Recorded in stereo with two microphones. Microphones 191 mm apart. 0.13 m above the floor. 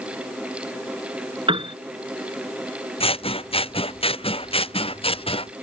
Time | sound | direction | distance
1.5 | a piano | 30° right (ahead or behind) | ?
3.0 | scissors | 30° left (ahead or behind) | ?